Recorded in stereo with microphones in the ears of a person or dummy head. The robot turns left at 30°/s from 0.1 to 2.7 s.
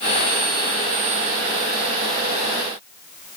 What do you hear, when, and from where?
Only background noise.